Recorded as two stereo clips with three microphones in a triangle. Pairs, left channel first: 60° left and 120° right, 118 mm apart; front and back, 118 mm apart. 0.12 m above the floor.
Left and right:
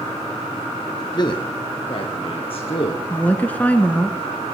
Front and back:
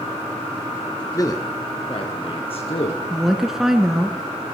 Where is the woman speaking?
100° left, 1.1 m.